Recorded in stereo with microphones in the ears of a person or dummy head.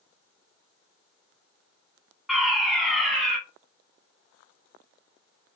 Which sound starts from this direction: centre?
A fire alarm, at 2.3 s.